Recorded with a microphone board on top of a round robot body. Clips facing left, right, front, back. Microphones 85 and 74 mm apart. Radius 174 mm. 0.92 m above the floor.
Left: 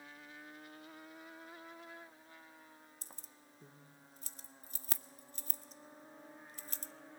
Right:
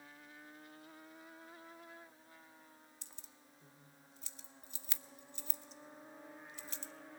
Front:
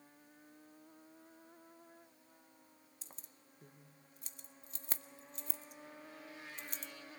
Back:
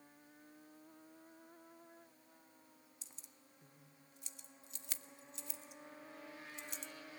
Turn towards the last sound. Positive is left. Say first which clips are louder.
# left 3 dB, front 3 dB
turn(degrees=45)